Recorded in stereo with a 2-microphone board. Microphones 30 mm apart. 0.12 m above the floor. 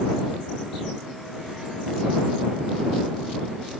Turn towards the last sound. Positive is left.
No sound to turn to.